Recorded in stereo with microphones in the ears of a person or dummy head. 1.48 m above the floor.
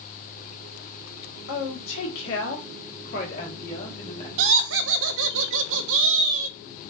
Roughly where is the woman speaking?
Left.